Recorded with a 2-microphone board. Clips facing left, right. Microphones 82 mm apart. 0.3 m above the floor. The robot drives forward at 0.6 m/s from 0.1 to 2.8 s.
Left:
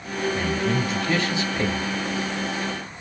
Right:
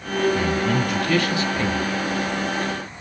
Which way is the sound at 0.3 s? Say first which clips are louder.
Right 3 dB; 25° left (ahead or behind).